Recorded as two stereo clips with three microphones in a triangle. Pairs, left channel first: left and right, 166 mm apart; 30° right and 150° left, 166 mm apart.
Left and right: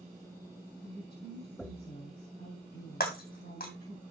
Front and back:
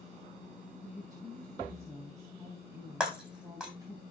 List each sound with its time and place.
0.8 s a woman speaking: 80° left, 4 m
3.0 s breaking glass: 65° left, 2 m